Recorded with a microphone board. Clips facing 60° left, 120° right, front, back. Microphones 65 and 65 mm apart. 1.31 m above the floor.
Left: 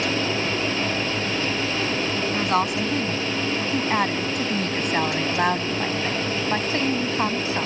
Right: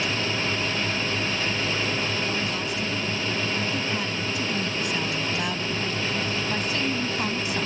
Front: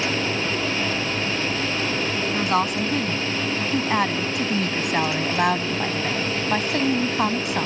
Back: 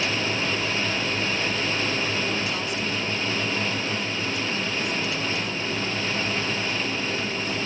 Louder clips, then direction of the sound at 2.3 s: Left 6 dB, front 6 dB; 35° left.